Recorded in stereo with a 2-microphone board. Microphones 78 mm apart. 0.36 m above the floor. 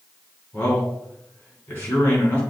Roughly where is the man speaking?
Left.